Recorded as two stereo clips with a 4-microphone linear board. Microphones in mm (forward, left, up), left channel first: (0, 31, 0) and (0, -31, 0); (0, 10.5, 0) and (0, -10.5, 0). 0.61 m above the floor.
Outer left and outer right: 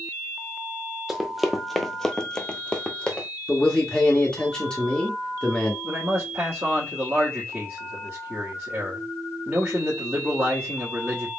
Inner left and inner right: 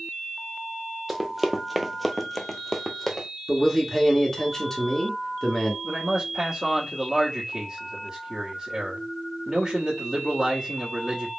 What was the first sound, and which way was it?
Running footsteps, 5° right (ahead or behind).